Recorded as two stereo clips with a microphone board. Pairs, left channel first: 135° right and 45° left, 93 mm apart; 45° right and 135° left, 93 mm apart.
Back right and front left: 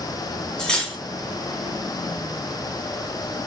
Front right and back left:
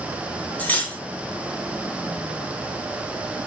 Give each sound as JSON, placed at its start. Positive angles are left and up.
{"t": 0.6, "sound": "cutlery clinking", "azimuth_deg": -70, "distance_m": 0.6}